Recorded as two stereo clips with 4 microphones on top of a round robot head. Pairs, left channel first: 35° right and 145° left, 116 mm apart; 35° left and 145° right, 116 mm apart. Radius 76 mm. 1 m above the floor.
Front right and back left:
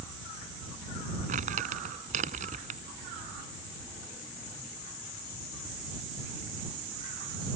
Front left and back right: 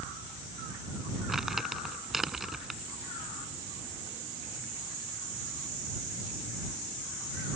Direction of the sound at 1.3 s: 125° left.